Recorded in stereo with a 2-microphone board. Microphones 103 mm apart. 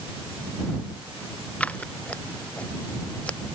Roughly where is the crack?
I don't hear a crack.